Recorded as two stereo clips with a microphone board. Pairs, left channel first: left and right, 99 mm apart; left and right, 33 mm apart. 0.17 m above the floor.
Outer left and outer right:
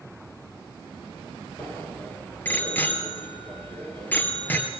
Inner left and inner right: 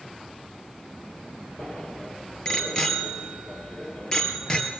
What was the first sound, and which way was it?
A bicycle bell, 20° left (ahead or behind).